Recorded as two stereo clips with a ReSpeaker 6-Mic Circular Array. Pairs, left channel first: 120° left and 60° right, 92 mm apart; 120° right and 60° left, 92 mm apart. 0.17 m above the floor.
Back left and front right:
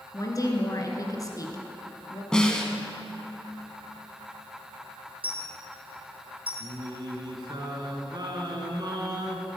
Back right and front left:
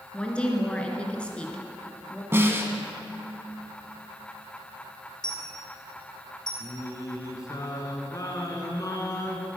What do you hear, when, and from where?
0.1 s a woman speaking: 165° left, 2 m
2.3 s a snare drum: 50° left, 1.4 m
5.2 s a dropped coin: 35° right, 3.5 m
6.6 s singing: 85° right, 1.8 m